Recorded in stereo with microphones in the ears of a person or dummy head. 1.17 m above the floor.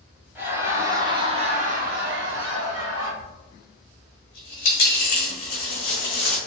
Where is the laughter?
10° right (ahead or behind), 1.1 m; by 3.1 s 75° right (ahead or behind), 0.8 m.